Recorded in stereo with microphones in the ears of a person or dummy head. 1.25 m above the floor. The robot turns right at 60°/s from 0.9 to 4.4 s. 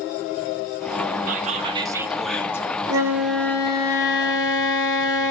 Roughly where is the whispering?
Ahead right.